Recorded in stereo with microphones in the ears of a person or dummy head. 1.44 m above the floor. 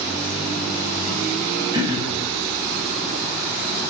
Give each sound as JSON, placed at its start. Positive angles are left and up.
{"t": 1.7, "sound": "throat clearing", "side_deg": -20, "distance_m": 1.1}